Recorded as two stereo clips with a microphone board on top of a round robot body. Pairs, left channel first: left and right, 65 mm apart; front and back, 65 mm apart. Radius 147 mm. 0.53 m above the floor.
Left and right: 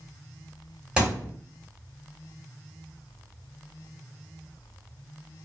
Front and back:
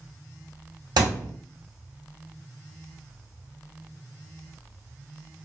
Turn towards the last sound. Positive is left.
turn(degrees=-165)